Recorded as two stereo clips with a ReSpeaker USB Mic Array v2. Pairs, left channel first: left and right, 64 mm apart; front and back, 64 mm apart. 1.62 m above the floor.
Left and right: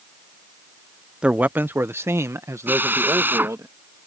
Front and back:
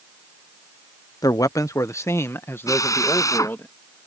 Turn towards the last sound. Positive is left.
turn(degrees=-35)